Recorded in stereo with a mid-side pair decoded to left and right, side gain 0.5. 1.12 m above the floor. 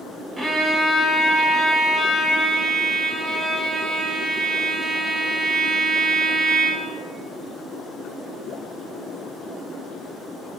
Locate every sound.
0.4 s a violin: 25° right, 0.8 m